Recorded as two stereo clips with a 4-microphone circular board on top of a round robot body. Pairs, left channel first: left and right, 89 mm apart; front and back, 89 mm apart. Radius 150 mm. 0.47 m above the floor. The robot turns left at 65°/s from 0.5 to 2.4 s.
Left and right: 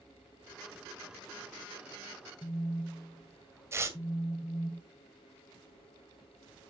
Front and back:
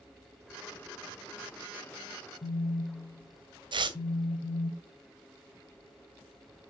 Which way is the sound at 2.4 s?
25° left.